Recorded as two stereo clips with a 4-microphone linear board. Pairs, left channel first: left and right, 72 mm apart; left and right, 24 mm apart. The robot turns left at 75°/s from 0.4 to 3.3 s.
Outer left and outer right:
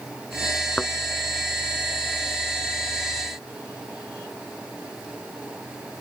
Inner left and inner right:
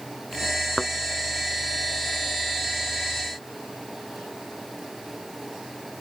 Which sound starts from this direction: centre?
A thud, at 0.8 s.